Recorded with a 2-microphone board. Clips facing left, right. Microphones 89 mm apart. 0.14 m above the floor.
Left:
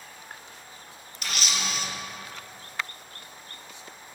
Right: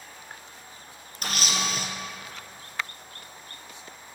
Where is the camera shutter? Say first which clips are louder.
Right 2 dB; 45° right (ahead or behind), 1.4 m.